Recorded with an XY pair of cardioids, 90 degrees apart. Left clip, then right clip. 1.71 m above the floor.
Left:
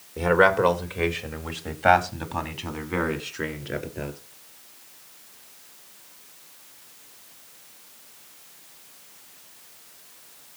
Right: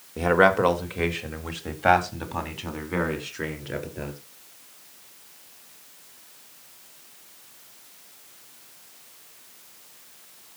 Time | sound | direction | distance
0.2 | a man speaking | 15° right | 3 m